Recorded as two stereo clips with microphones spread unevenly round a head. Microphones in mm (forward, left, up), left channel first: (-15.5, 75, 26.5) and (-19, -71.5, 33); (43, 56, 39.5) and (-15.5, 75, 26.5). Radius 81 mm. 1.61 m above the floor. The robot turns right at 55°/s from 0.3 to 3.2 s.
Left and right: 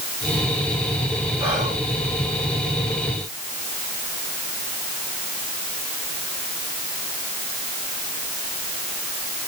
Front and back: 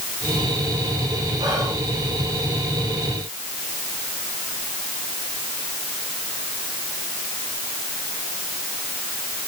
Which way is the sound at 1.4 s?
155° right.